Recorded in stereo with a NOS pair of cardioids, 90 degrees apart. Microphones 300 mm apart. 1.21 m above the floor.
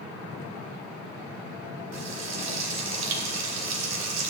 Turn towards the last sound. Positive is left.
turn(degrees=-65)